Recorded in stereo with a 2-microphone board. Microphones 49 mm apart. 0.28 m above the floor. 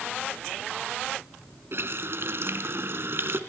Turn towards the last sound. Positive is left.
turn(degrees=-60)  # may be behind; listen again after turning